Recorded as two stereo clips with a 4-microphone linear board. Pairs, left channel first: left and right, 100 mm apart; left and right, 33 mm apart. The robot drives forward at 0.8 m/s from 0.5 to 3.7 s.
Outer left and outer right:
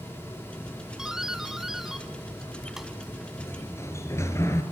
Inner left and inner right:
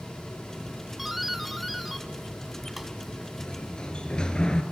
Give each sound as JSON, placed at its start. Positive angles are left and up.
{"t": 1.0, "sound": "a doorbell", "side_deg": -5, "distance_m": 1.4}
{"t": 3.4, "sound": "a sliding door", "side_deg": 25, "distance_m": 3.5}